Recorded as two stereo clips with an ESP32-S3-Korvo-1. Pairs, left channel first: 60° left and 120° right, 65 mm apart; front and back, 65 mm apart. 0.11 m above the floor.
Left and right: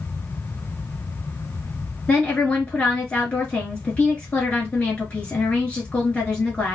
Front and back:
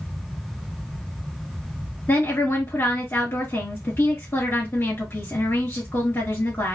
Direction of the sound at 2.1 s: Straight ahead.